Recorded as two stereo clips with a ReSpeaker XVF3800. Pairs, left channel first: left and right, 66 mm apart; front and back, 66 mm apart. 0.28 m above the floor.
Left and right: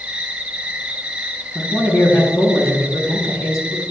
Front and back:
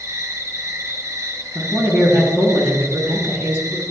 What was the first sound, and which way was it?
An insect, 160° right.